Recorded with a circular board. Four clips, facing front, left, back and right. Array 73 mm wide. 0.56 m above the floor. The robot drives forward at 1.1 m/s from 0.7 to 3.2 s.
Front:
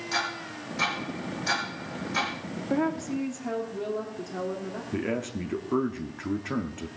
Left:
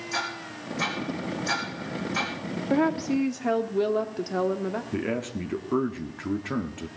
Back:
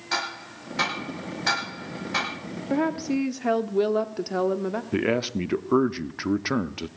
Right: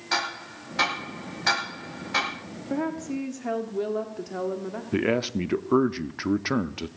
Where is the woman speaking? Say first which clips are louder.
Left 5 dB, back 3 dB; 105° left, 0.7 m; by 4.8 s 155° left, 0.9 m.